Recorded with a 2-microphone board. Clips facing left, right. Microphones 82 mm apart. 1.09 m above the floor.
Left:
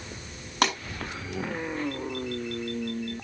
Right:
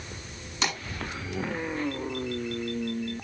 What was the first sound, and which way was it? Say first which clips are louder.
A pop: left 6 dB; 55° left (ahead or behind).